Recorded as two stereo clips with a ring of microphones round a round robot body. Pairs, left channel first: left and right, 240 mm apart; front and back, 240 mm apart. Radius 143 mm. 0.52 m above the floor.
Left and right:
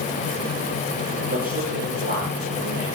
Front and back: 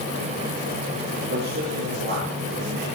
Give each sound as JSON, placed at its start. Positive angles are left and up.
{"t": 1.3, "sound": "a man speaking", "azimuth_deg": -140, "distance_m": 9.0}